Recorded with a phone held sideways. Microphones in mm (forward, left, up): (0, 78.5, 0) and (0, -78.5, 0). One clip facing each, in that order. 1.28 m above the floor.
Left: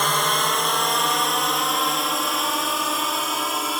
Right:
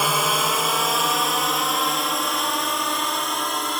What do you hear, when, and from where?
0.0 s a drone: 5° right (ahead or behind); by 3.8 s 5° left (ahead or behind)